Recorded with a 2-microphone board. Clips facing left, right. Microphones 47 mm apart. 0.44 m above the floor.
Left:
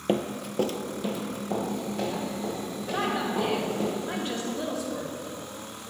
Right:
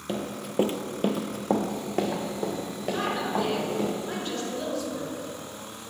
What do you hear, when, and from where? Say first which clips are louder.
0.1 s running footsteps: left 5 dB; 35° left (ahead or behind), 0.7 m; by 3.9 s 85° right, 4 m
2.9 s a woman speaking: even; 20° left (ahead or behind), 2.5 m